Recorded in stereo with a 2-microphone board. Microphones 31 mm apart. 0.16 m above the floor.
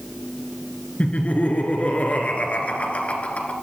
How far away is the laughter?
About 2.5 m.